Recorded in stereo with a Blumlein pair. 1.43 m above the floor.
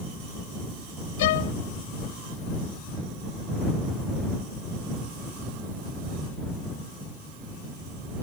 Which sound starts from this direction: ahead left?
A violin, at 1.2 s.